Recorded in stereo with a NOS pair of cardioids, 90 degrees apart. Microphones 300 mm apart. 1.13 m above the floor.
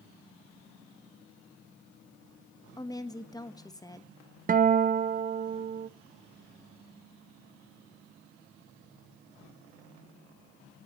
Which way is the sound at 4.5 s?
30° right.